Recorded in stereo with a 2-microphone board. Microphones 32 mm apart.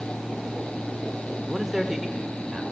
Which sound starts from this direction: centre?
A man speaking, at 1.5 s.